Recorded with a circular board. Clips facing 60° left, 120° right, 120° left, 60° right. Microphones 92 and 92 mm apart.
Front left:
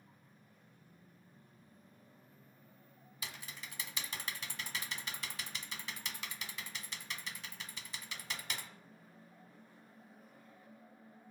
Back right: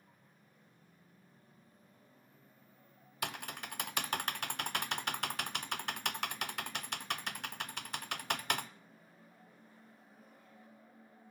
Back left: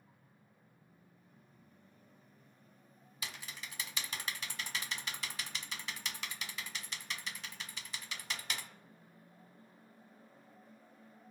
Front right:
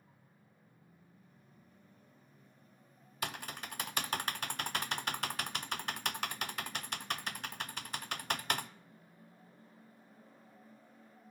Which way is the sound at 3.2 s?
95° right.